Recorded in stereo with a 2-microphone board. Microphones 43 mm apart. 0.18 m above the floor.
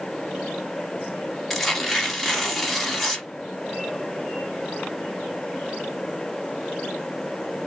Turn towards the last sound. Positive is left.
turn(degrees=5)  # may be behind; listen again after turning